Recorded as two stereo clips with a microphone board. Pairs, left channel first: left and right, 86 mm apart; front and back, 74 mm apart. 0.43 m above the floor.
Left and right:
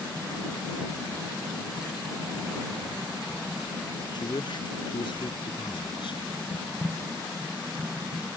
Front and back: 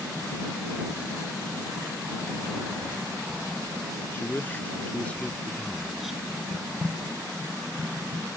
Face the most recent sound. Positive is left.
turn(degrees=95)